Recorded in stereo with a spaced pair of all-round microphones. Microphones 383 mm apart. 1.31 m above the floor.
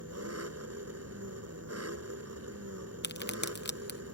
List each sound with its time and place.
0.0 s an engine running: 40° right (ahead or behind)
3.0 s a crack: 25° left (ahead or behind)